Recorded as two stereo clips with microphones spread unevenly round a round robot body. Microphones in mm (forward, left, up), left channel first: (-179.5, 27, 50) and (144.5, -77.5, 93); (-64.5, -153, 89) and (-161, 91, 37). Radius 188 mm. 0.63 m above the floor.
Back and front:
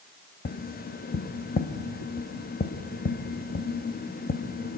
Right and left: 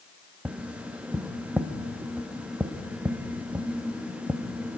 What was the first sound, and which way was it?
Tapping, 175° left.